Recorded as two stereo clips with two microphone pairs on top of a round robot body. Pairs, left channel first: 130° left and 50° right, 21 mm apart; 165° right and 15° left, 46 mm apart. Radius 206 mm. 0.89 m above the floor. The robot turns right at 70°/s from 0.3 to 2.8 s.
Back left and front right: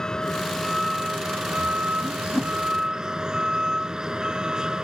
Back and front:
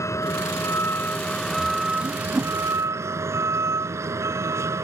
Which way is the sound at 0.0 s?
170° right.